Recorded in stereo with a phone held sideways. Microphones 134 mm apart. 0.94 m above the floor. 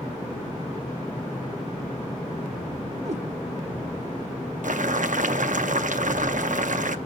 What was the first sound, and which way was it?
A cat meowing, 55° right (ahead or behind).